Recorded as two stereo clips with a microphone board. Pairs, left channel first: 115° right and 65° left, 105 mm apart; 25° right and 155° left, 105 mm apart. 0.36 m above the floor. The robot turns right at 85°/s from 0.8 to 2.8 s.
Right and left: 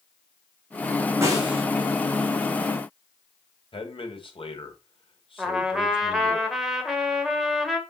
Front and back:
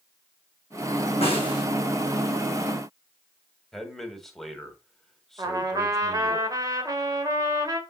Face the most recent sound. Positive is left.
turn(degrees=150)